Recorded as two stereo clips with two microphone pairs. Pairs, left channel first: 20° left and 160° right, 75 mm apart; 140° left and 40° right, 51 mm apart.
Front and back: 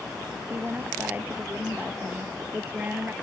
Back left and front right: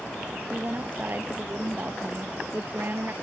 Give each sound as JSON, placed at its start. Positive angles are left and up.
{"t": 0.5, "sound": "a woman speaking", "azimuth_deg": -95}